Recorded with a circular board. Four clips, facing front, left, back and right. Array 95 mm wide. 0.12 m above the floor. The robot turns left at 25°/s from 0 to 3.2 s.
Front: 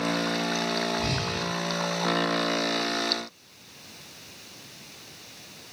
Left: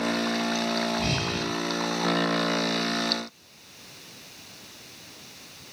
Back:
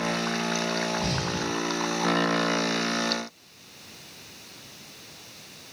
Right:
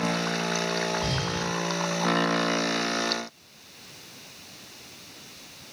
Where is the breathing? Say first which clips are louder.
Left 1 dB, back 1 dB; 75° left, 3.5 m; by 1.5 s 65° left, 3.5 m.